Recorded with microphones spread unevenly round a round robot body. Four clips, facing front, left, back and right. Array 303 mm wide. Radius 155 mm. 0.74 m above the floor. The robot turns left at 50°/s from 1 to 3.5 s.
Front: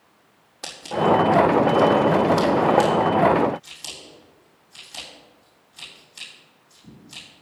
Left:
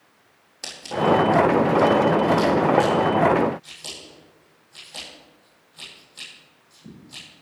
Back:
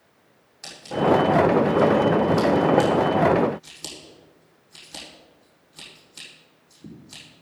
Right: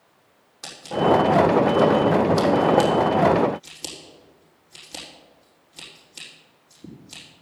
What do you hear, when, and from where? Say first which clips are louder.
0.6 s scissors: right 1 dB, front 1 dB; 10° left, 6 m; by 7.2 s 115° right, 6 m